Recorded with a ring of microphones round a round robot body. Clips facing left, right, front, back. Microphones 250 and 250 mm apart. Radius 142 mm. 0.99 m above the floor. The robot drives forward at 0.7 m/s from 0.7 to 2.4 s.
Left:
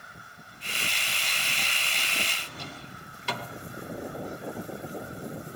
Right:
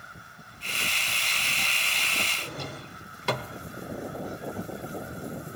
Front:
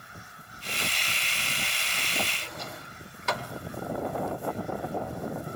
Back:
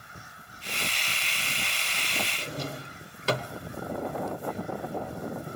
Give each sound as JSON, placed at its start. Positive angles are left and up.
{"t": 2.4, "sound": "a drawer", "azimuth_deg": -130, "distance_m": 0.9}